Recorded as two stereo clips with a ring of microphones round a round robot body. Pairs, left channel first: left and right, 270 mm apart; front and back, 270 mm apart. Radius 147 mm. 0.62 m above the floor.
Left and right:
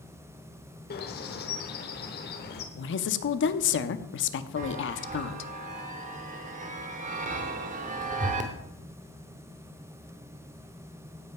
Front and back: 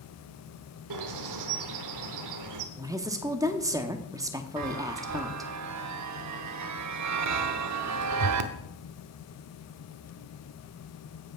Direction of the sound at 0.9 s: 150° left.